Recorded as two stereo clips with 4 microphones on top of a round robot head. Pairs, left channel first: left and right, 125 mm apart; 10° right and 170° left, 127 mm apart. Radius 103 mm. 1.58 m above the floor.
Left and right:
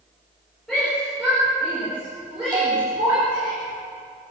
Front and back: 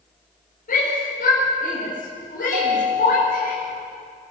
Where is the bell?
145° right, 5.5 m.